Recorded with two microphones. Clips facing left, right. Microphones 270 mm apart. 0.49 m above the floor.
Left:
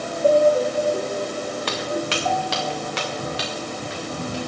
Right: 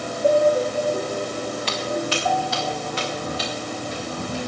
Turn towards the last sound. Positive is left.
turn(degrees=75)  # may be behind; listen again after turning